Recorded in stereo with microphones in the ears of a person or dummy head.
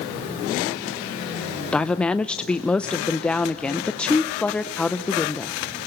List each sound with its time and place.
1.7 s a woman speaking: 5° left (ahead or behind), 0.5 m